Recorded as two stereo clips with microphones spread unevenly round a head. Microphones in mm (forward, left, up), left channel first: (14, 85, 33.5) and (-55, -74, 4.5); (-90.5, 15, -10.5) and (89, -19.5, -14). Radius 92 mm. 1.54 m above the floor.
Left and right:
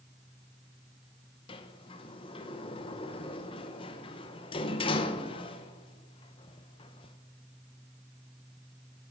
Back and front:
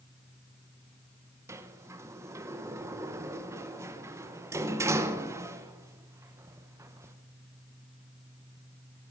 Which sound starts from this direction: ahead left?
A sliding door, at 1.5 s.